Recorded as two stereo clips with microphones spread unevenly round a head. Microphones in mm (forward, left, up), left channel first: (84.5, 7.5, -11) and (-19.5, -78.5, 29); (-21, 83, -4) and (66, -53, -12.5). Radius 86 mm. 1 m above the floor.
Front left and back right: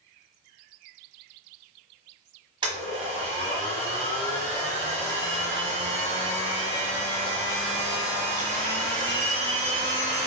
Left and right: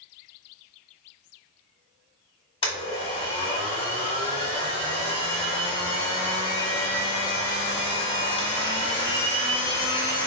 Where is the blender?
175° left, 1.3 m.